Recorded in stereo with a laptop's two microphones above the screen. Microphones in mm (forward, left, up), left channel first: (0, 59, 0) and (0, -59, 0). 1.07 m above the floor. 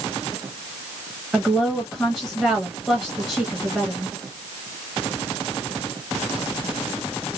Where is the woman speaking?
Centre (ahead or behind), 0.9 m.